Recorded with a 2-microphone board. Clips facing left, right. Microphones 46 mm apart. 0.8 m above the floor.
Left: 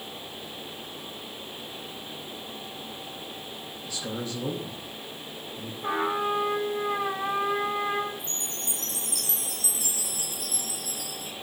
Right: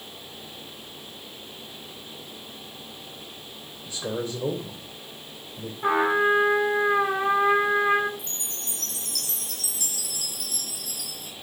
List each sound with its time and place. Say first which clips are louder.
3.9 s a man speaking: right 4 dB; 30° right (ahead or behind), 3 m
5.8 s a trumpet: right 6 dB; 80° right, 9 m
8.2 s a chime: left 2 dB; 75° right (ahead or behind), 7 m